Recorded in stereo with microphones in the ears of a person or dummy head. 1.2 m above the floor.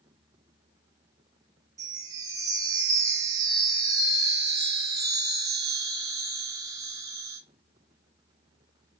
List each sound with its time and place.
1.8 s a chime: 20° right (ahead or behind), 0.6 m